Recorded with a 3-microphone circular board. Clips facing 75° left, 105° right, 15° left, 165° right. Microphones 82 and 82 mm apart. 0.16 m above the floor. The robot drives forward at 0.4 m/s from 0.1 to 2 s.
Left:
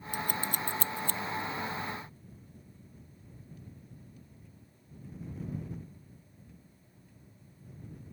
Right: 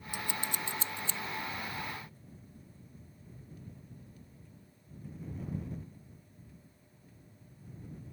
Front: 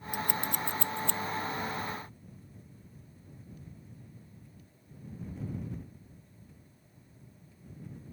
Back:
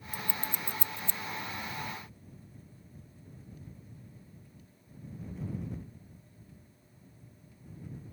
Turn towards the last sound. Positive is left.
turn(degrees=40)